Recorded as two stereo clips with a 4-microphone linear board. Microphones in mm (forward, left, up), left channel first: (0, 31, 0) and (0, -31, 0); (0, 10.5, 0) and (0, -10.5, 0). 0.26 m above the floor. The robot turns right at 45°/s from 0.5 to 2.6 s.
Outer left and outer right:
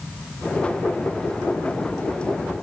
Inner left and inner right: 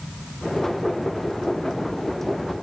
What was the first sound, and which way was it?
Only background noise.